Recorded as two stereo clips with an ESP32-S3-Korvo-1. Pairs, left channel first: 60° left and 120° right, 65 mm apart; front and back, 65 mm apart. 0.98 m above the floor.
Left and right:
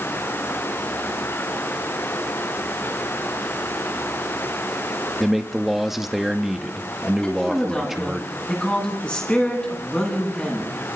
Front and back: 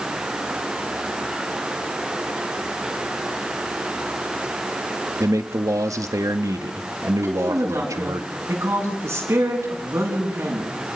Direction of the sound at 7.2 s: 130° left.